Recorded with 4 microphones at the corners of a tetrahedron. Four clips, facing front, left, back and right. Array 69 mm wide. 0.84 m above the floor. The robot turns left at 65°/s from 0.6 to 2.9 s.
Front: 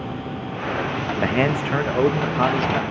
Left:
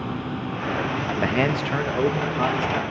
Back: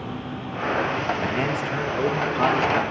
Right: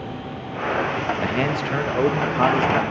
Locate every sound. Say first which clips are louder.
0.0 s an insect: left 3 dB, front 2 dB; 90° left, 3 m; by 2.9 s 60° right, 3 m
1.2 s a man speaking: even, front 4 dB; 25° left, 0.9 m; by 2.8 s 80° right, 0.9 m